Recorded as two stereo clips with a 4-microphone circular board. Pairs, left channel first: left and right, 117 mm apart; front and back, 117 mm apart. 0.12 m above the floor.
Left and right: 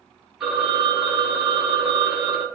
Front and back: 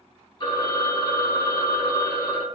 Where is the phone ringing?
10° right, 1.3 m.